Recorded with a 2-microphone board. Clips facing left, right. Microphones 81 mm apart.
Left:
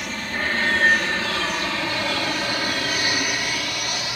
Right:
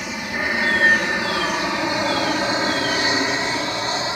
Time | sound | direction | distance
0.0 | an aircraft | 10° right (ahead or behind) | ?